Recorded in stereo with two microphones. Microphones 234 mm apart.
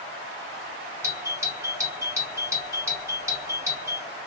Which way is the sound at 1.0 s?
15° right (ahead or behind).